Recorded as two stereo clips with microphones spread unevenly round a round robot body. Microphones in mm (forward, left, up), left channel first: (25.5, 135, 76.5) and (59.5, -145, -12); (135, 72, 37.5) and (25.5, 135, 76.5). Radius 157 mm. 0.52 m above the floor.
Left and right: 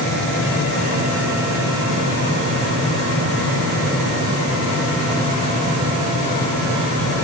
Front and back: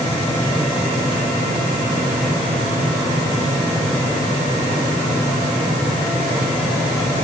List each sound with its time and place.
Only background noise.